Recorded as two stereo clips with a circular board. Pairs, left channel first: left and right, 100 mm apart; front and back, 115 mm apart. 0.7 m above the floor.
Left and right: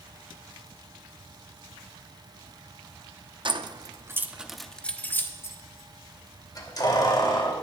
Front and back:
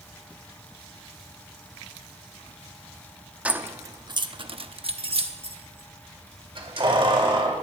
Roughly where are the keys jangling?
Right.